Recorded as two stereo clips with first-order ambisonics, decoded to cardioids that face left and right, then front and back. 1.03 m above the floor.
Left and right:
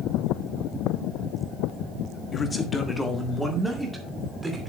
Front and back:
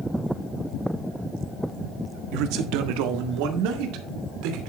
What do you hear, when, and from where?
2.3 s a man speaking: 160° left, 1.3 m; by 4.7 s 175° right, 2.5 m